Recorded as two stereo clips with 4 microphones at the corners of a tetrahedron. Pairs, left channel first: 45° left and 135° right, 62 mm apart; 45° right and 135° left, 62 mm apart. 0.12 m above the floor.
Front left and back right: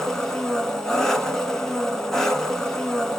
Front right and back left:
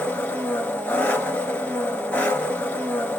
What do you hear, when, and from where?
0.0 s an engine running: 30° right, 0.9 m